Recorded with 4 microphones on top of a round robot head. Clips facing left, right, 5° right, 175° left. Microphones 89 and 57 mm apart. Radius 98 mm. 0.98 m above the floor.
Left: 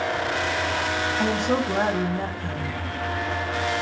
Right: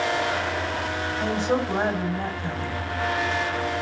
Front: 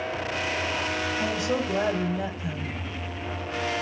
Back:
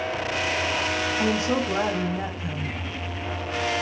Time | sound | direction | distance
1.2 | a woman speaking | 125° left | 2 m